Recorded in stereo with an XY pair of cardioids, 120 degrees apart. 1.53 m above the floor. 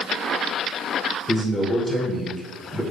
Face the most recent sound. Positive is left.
turn(degrees=15)